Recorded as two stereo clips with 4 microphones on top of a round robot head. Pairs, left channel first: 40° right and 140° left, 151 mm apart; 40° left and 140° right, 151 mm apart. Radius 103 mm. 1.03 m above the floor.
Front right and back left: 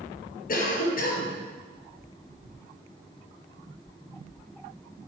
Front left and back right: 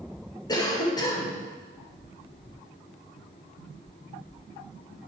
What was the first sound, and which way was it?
A cough, 20° right.